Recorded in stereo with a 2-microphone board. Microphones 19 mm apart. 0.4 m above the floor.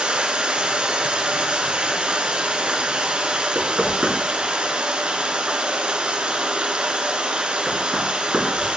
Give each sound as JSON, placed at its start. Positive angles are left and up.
{"t": 0.0, "sound": "running water", "side_deg": -80, "distance_m": 1.3}
{"t": 3.5, "sound": "knocking", "side_deg": -70, "distance_m": 3.0}